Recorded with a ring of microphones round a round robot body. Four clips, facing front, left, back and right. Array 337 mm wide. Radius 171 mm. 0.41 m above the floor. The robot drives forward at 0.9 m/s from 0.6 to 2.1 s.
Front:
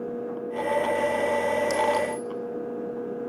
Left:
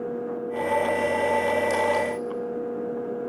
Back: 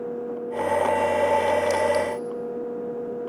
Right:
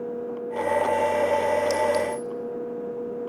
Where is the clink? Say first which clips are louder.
Even, back 2 dB; 115° right, 1.3 m; by 2.3 s 130° right, 1.4 m.